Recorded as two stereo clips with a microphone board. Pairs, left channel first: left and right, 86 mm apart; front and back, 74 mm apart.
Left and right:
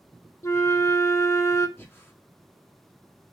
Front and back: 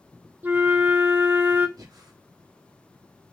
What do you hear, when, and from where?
0.4 s a flute: 130° left, 0.6 m
1.8 s breathing: 155° left, 1.1 m